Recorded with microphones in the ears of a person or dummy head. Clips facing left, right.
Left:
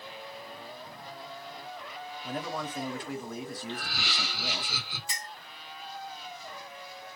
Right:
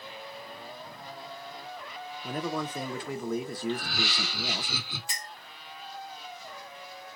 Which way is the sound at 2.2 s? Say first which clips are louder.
Right 3 dB; 60° right (ahead or behind).